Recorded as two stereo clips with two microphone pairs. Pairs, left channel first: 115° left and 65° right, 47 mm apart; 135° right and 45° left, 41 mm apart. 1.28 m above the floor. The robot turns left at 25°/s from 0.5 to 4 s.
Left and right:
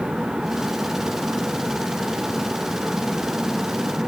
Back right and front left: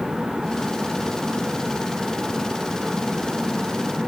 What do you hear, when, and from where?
Only background noise.